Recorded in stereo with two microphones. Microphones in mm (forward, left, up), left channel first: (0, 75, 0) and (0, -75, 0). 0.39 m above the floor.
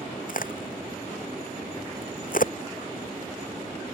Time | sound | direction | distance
0.3 | a crack | 65° left (ahead or behind) | ?